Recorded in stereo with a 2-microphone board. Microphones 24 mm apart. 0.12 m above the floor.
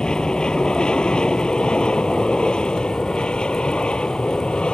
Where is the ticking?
No ticking in this recording.